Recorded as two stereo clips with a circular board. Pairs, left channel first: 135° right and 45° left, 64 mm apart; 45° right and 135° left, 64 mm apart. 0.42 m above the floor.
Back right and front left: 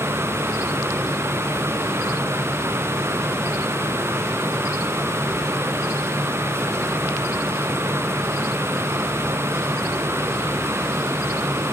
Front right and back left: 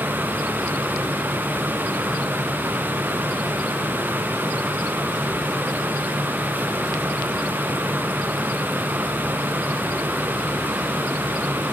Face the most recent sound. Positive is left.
No sound to turn to.